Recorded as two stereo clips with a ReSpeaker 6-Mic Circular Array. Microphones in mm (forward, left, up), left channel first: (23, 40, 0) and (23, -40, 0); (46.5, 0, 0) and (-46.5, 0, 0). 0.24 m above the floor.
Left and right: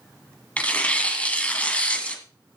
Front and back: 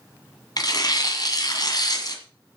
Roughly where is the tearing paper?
Ahead.